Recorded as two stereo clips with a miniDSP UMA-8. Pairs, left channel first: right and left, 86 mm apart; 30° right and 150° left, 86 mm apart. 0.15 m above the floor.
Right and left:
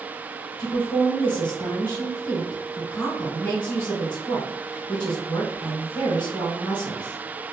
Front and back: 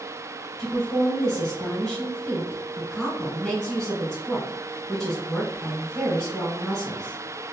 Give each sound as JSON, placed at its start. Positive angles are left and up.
{"t": 0.6, "sound": "a woman speaking", "azimuth_deg": -120, "distance_m": 1.1}